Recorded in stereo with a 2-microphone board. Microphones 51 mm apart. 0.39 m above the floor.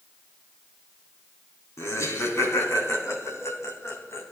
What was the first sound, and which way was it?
Laughter, 70° left (ahead or behind).